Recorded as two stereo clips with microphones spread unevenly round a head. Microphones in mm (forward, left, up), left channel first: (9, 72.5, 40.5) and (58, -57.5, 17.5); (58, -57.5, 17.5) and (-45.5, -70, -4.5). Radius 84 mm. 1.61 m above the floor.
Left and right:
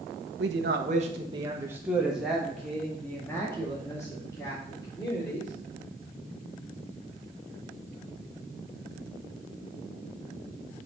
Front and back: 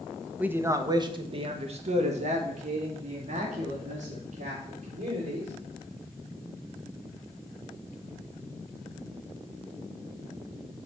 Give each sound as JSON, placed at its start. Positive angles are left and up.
{"t": 0.4, "sound": "a man speaking", "azimuth_deg": -90, "distance_m": 1.1}